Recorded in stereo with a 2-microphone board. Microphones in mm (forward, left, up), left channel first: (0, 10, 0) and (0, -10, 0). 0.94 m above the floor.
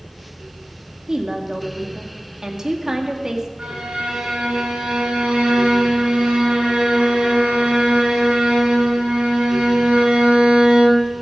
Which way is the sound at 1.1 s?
35° right (ahead or behind).